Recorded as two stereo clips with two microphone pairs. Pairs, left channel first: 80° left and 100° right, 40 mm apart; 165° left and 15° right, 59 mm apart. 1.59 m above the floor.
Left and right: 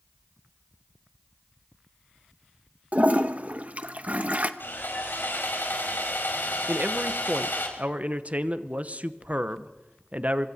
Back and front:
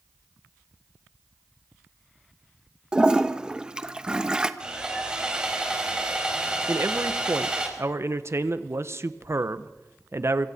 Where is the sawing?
60° left, 4.5 m.